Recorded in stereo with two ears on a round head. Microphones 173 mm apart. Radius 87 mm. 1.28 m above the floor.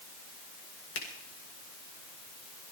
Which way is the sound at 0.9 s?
65° left (ahead or behind).